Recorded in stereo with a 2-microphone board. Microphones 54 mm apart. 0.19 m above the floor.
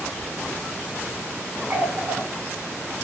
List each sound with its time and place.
1.7 s a running tap: 45° right (ahead or behind), 1.4 m